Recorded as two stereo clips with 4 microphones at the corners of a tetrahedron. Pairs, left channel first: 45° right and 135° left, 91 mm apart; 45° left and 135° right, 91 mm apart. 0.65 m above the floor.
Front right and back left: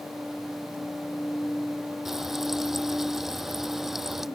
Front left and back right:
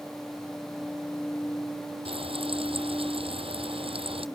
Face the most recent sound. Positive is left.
turn(degrees=-140)